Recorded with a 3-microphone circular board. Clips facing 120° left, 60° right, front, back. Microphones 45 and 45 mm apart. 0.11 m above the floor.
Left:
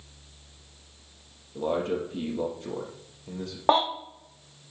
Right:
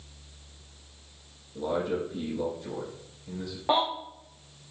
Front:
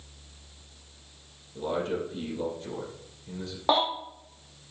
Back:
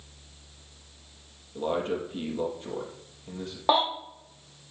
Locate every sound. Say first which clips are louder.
1.6 s a man speaking: left 1 dB, back 1 dB; 125° left, 4 m
3.7 s a baby crying: left 4 dB, back 1 dB; 95° left, 3 m